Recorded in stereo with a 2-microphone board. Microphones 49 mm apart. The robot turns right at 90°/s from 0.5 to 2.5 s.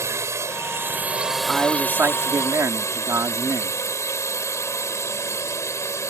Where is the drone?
85° right; by 6.1 s 95° left.